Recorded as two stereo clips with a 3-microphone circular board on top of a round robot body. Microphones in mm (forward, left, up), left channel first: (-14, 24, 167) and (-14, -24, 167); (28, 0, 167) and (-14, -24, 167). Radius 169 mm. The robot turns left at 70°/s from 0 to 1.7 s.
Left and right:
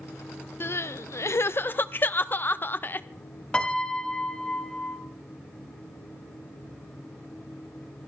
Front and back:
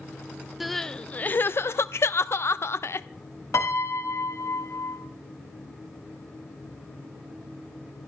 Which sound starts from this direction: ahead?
A piano, at 3.5 s.